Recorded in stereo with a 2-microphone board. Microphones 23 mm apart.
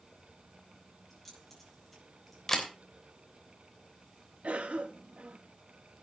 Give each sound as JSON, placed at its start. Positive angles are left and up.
{"t": 1.1, "sound": "keys jangling", "side_deg": 5, "distance_m": 9.0}
{"t": 2.5, "sound": "a camera shutter", "side_deg": 15, "distance_m": 3.0}
{"t": 4.4, "sound": "a cough", "side_deg": -70, "distance_m": 1.9}